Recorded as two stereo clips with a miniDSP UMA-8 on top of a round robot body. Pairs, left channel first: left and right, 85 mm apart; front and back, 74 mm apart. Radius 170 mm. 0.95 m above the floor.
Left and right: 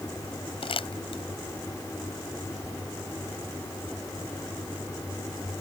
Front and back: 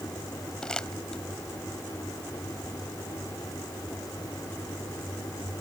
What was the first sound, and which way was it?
Crumpling, 80° left.